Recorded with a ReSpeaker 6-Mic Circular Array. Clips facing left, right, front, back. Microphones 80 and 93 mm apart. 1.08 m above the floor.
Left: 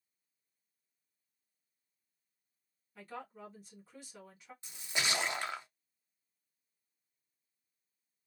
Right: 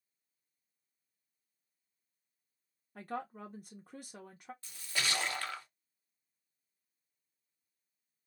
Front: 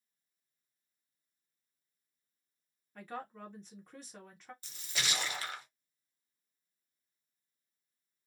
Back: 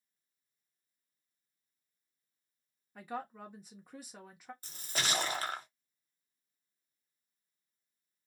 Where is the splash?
150° left, 0.6 m.